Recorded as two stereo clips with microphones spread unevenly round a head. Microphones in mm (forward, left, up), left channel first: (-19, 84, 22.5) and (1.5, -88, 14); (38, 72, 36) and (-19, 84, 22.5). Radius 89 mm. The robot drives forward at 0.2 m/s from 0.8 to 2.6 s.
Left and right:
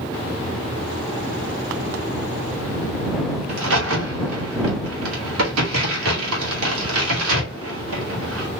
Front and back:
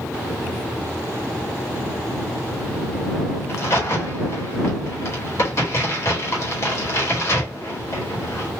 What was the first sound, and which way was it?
A crack, 80° right.